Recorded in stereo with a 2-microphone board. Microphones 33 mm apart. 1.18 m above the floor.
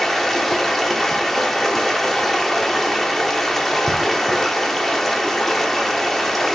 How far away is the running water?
About 1.1 m.